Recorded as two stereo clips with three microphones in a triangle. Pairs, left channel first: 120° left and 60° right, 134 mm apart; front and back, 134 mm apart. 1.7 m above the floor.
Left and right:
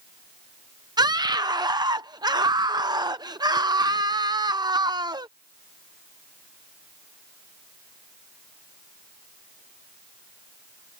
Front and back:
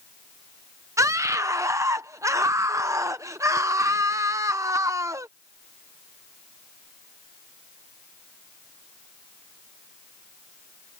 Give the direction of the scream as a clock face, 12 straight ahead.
4 o'clock.